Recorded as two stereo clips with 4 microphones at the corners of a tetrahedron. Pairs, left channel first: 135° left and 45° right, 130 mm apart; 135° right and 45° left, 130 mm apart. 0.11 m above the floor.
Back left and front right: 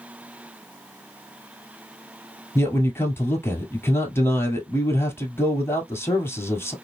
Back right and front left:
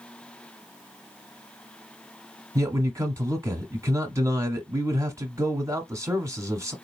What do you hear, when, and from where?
2.5 s a man speaking: 85° left, 1.2 m